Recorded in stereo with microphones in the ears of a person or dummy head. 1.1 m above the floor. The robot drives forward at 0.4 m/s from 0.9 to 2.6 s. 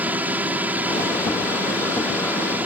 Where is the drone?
10° right (ahead or behind).